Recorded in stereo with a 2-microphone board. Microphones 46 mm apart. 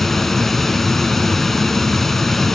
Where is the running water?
5° left (ahead or behind), 1.4 m.